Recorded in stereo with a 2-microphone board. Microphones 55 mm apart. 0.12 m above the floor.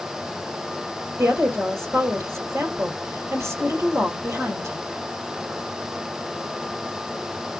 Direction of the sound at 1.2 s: 50° right (ahead or behind).